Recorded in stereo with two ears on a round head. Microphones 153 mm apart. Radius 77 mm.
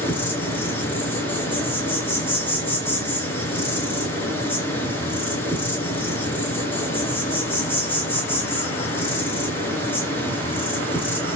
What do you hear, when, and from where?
0.0 s an insect: 10° left (ahead or behind), 3 m